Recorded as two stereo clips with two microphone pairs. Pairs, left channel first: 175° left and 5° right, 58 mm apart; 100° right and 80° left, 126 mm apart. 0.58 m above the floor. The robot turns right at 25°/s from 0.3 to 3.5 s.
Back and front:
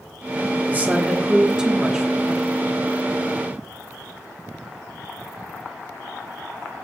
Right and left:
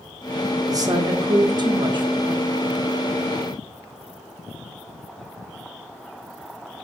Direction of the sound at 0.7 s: 40° left.